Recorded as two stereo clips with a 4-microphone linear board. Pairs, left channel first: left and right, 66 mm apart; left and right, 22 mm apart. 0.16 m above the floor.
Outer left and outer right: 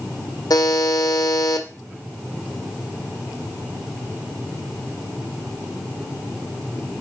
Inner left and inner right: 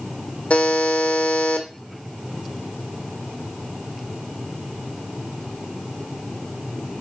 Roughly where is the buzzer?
Left.